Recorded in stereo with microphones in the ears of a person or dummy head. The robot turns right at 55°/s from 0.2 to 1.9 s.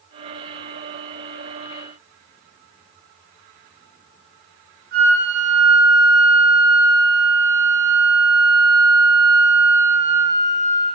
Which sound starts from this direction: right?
A flute, at 4.9 s.